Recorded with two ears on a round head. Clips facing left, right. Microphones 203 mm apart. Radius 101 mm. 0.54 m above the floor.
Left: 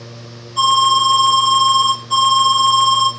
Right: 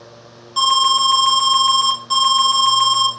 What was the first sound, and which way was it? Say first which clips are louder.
An alarm: left 3 dB; 60° right (ahead or behind).